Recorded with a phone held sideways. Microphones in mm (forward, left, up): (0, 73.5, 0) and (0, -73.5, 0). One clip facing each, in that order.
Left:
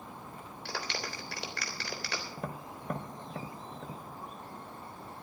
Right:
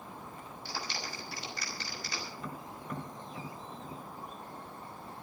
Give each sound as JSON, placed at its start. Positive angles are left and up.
{"t": 0.7, "sound": "a clap", "side_deg": 70, "distance_m": 3.5}
{"t": 2.4, "sound": "tapping", "side_deg": 60, "distance_m": 1.5}